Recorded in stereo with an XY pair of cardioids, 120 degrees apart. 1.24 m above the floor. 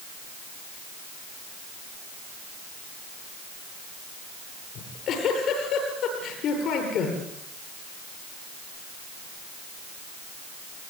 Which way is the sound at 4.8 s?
60° left.